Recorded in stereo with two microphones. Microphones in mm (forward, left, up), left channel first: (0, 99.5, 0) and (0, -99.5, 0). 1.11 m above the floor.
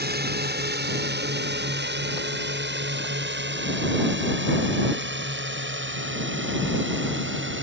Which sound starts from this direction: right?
A drone, at 0.0 s.